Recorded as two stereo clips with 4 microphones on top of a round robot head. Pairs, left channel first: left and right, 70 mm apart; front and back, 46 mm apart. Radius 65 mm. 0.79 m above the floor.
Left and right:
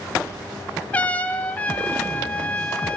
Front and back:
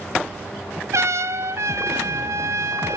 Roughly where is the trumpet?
Behind.